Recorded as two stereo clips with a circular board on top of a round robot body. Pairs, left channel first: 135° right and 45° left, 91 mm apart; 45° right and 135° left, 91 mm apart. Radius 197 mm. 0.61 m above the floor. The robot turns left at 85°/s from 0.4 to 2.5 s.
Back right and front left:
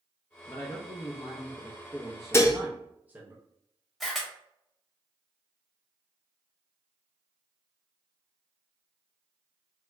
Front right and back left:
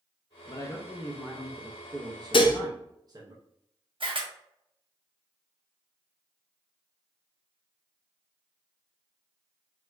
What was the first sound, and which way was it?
A man speaking, 75° right.